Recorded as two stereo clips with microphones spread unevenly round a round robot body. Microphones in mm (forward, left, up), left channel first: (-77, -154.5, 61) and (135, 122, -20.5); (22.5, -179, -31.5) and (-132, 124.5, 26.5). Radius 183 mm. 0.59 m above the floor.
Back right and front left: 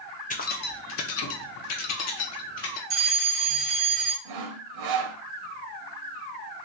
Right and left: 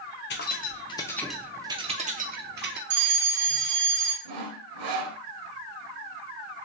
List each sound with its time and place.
0.3 s keys jangling: 55° right, 0.8 m; by 2.8 s straight behind, 1.1 m
2.9 s a fire alarm: 105° left, 3 m
4.2 s sawing: 90° left, 0.7 m